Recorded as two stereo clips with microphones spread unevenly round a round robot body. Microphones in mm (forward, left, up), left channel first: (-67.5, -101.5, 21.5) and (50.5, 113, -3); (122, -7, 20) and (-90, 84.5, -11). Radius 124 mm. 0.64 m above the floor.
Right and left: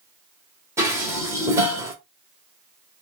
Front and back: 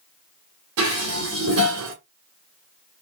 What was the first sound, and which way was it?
Dishes clattering, 140° left.